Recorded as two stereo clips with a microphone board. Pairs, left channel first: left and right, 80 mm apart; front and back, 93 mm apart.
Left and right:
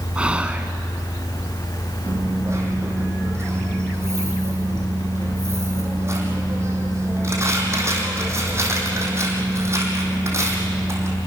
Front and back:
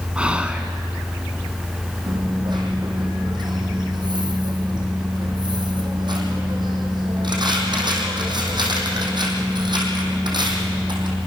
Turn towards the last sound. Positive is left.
turn(degrees=-145)